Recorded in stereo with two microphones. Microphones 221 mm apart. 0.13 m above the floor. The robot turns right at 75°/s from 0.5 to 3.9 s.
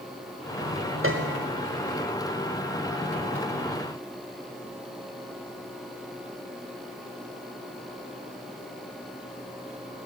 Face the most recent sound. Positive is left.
turn(degrees=140)